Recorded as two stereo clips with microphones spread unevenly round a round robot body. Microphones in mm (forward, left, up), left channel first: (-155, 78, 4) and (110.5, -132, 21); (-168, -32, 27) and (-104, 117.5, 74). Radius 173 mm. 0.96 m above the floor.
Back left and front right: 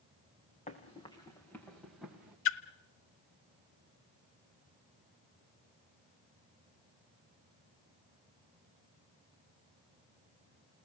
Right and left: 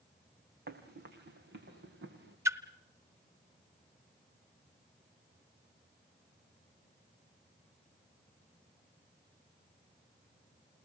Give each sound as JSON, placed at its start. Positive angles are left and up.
{"t": 0.7, "sound": "running footsteps", "azimuth_deg": 70, "distance_m": 3.5}
{"t": 2.5, "sound": "a splash", "azimuth_deg": 105, "distance_m": 0.8}